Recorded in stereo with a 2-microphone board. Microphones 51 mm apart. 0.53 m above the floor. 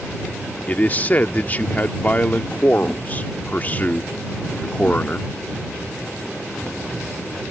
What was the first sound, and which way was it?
A man speaking, 35° left (ahead or behind).